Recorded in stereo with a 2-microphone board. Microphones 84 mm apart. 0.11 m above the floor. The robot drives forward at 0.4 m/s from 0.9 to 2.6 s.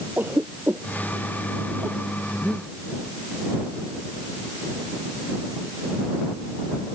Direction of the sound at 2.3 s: 10° left (ahead or behind).